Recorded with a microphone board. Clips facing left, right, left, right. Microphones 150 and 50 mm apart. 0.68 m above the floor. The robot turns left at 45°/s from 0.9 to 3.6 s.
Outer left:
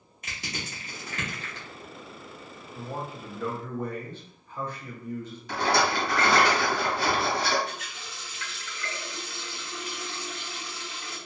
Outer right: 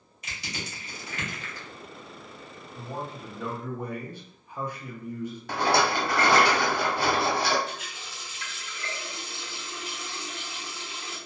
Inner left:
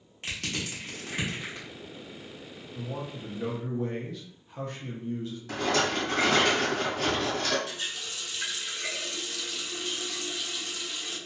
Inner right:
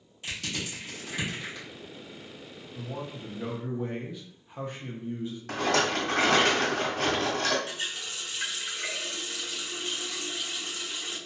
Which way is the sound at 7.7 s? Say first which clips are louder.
Even, inner right 1 dB; 25° right (ahead or behind).